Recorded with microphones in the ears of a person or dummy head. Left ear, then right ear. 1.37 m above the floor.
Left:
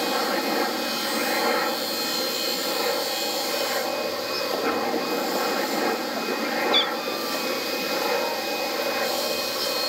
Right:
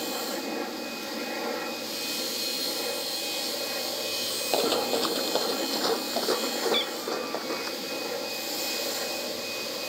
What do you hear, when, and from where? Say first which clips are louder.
0.0 s a helicopter: left 8 dB; 45° left (ahead or behind)
4.5 s running footsteps: right 1 dB; 60° right (ahead or behind); by 7.7 s 75° right (ahead or behind)
6.7 s a cat meowing: left 5 dB; 15° left (ahead or behind)